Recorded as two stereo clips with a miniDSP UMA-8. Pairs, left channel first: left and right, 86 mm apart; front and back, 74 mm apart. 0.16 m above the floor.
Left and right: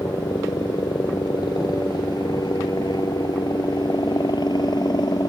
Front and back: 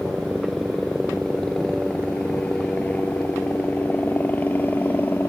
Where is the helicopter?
95° left; by 5.3 s 60° left.